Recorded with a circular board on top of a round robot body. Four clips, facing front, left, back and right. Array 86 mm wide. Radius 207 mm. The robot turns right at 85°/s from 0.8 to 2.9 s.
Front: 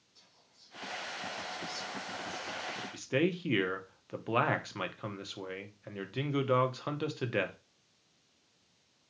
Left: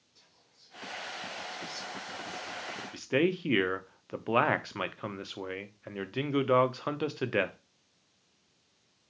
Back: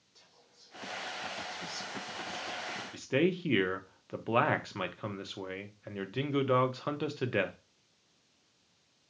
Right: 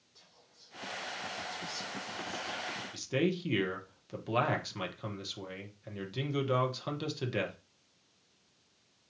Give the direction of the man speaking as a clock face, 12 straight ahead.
9 o'clock.